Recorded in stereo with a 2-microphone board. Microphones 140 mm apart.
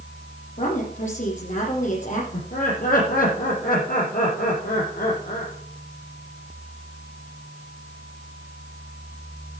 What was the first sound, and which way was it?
A woman speaking, 65° left (ahead or behind).